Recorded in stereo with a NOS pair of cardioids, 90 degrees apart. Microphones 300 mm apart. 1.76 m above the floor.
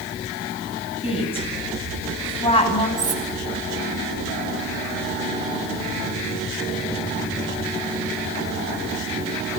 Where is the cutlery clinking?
25° right, 6 m.